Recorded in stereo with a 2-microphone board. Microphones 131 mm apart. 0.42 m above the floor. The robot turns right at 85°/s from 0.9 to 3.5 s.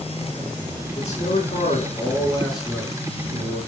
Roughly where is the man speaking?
Ahead left.